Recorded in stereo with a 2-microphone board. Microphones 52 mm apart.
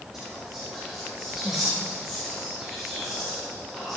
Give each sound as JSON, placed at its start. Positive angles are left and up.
{"t": 0.1, "sound": "whispering", "side_deg": -5, "distance_m": 3.0}